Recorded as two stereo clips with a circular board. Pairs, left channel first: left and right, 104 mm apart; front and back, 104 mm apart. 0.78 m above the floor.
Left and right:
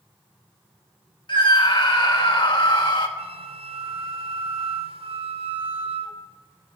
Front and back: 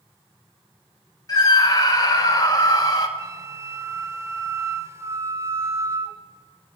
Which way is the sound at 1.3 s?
55° left.